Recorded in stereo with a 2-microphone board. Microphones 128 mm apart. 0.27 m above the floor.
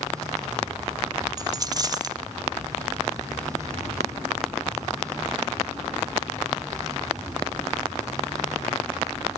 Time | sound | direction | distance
1.4 | a dropped coin | 30° right (ahead or behind) | 0.5 m